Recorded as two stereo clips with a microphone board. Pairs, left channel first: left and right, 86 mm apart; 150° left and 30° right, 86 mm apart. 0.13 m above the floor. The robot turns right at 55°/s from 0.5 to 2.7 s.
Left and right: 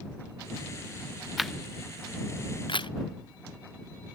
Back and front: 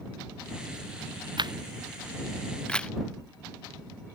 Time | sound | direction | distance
1.4 | a camera shutter | 5° right | ?